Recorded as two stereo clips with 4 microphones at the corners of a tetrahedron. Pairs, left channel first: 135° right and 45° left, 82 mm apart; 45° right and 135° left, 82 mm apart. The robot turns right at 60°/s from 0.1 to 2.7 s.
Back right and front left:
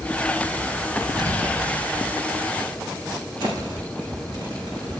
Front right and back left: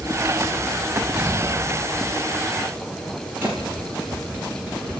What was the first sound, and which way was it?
An explosion, 55° left.